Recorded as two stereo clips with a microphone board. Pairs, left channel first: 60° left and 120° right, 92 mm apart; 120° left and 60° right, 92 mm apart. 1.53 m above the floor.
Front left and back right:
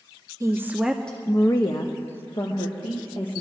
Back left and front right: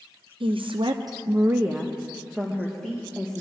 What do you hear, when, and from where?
0.4 s a woman speaking: 65° right, 0.7 m; by 3.4 s 40° left, 1.9 m